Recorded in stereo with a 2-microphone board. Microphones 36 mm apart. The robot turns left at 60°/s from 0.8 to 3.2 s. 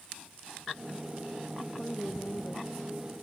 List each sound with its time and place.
1.6 s a woman speaking: 175° left; by 3.1 s 80° left